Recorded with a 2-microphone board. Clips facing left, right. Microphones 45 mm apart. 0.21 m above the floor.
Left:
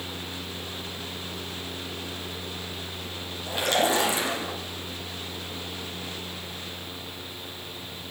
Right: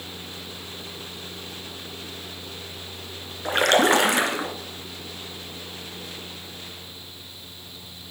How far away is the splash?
About 2 m.